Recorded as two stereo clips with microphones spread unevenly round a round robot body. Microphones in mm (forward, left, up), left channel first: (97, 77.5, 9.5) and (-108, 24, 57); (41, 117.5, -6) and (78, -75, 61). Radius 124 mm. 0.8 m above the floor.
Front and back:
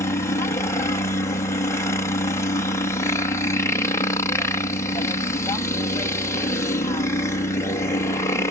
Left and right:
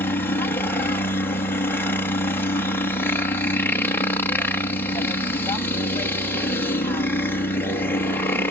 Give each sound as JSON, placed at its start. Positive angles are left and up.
{"t": 0.0, "sound": "a helicopter", "azimuth_deg": 60}